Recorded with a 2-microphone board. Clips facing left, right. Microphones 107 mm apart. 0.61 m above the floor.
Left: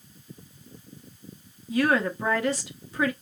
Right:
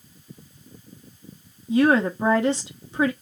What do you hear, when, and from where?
1.7 s a woman speaking: 25° right (ahead or behind), 1.0 m